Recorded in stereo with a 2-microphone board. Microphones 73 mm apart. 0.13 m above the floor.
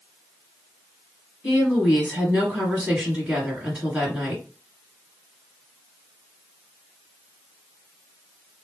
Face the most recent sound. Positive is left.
turn(degrees=-15)  # may be behind; listen again after turning